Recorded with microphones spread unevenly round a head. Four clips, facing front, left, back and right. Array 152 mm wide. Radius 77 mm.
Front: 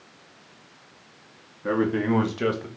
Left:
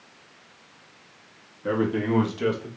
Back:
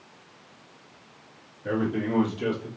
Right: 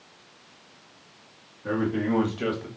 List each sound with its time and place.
1.6 s a man speaking: 25° left, 1.9 m; by 2.7 s 10° right, 1.2 m